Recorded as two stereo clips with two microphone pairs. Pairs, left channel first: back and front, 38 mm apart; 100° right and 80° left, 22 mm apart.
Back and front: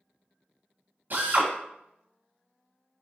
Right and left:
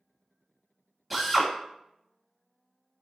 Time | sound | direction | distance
1.1 | a drill | straight ahead | 1.2 m